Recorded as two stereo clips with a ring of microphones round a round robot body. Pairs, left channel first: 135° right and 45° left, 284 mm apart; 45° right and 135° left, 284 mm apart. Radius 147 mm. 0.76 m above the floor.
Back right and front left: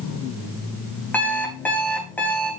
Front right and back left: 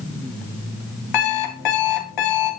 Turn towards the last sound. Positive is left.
turn(degrees=-50)